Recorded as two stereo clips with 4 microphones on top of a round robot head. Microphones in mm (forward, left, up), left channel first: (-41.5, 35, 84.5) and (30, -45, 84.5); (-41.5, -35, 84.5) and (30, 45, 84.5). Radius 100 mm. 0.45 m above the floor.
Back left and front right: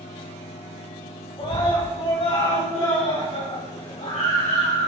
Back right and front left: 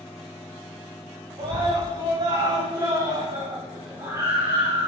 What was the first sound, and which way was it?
A scream, 90° left.